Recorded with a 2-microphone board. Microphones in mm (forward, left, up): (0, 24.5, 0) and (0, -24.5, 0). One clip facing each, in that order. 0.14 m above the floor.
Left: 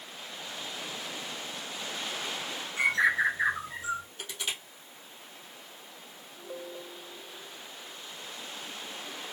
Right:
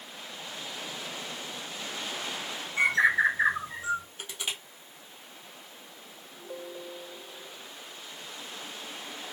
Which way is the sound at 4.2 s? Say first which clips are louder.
Even; 20° right (ahead or behind).